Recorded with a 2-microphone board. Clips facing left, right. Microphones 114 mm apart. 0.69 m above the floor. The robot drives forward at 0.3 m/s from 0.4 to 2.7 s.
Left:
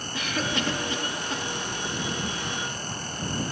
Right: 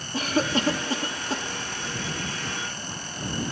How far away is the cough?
About 0.8 m.